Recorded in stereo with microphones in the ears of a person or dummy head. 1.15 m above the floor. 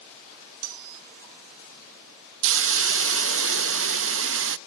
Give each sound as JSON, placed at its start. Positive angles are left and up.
{"t": 0.6, "sound": "cutlery clinking", "side_deg": -75, "distance_m": 1.5}
{"t": 2.4, "sound": "a hiss", "side_deg": -70, "distance_m": 0.7}